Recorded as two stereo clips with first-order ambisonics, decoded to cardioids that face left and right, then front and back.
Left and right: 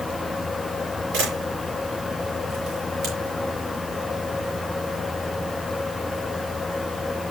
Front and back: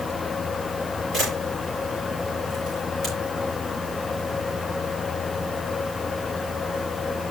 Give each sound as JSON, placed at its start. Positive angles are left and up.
{"t": 1.1, "sound": "a camera shutter", "azimuth_deg": -85, "distance_m": 8.0}